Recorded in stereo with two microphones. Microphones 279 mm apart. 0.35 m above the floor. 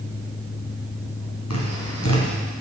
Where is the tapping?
65° left (ahead or behind), 3 m.